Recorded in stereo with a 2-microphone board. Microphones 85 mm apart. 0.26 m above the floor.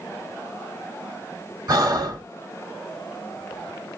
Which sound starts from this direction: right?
Breathing, at 1.7 s.